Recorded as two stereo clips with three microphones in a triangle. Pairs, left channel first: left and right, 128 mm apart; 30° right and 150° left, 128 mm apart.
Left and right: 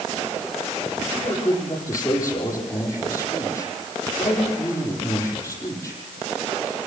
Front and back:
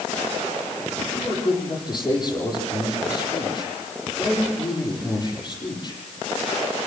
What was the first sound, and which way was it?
A man speaking, 25° left.